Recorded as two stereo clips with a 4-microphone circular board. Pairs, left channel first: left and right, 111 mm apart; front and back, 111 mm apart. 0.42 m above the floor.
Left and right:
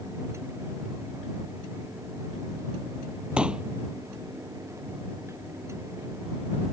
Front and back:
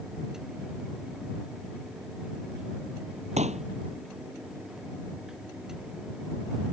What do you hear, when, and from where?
3.4 s a pop: 170° right